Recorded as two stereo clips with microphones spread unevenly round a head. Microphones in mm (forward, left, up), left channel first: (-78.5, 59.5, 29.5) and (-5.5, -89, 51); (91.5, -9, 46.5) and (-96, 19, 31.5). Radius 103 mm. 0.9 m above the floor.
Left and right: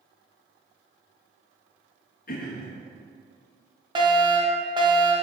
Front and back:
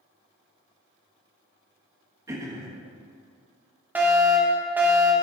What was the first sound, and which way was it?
Throat clearing, 100° left.